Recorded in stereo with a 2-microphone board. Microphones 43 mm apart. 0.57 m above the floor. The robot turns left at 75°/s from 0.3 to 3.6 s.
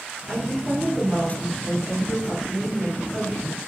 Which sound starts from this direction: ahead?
A woman speaking, at 0.3 s.